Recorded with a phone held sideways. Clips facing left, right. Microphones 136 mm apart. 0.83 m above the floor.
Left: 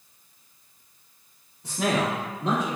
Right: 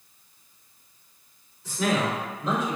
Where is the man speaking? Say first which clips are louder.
Even; 60° left (ahead or behind), 1.3 m; by 2.8 s 75° left (ahead or behind), 1.8 m.